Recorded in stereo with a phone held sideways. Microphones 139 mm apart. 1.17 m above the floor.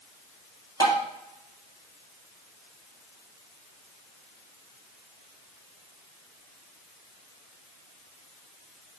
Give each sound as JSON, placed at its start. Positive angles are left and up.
{"t": 0.8, "sound": "tapping", "side_deg": 25, "distance_m": 2.5}